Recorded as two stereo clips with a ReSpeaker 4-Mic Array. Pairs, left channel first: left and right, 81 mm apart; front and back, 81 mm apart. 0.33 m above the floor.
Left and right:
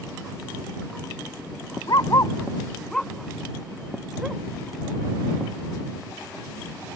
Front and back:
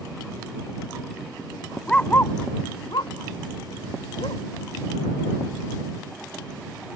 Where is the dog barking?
80° left; by 4.4 s 10° right.